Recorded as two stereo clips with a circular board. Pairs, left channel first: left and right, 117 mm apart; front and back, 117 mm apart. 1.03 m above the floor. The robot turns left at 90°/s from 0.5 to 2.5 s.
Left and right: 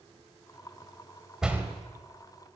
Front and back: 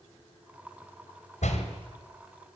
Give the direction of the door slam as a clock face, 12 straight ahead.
12 o'clock.